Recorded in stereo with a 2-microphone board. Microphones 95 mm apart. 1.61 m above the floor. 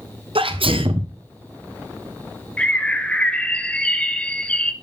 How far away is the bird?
About 0.8 m.